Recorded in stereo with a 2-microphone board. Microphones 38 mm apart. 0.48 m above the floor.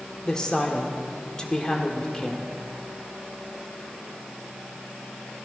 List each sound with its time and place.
0.2 s a woman speaking: 20° left (ahead or behind), 1.5 m